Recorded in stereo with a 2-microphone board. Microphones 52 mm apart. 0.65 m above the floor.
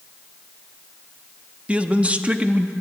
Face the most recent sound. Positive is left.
turn(degrees=-25)  # may be behind; listen again after turning